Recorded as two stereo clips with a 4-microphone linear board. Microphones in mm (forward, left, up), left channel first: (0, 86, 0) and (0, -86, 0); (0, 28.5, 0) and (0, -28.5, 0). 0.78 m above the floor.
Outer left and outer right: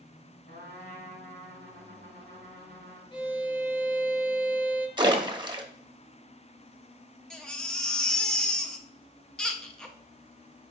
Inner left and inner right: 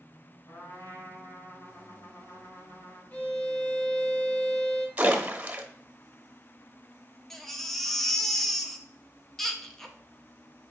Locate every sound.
0.5 s a trumpet: 80° left, 2.5 m
3.1 s a violin: 25° left (ahead or behind), 0.7 m
5.0 s a splash: 25° right (ahead or behind), 0.7 m
7.3 s a baby crying: 5° left (ahead or behind), 0.6 m